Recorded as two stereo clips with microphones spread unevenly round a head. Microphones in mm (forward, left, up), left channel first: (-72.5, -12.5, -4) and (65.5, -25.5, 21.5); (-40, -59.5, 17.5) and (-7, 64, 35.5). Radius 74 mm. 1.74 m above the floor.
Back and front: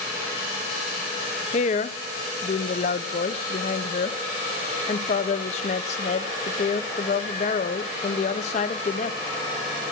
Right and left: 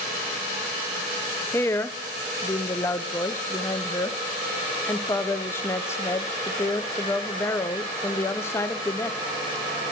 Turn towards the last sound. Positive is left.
turn(degrees=-175)